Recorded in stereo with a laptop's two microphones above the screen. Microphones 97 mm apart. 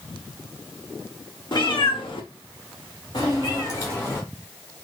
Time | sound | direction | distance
1.5 | a cat meowing | 50° left (ahead or behind) | 1.0 m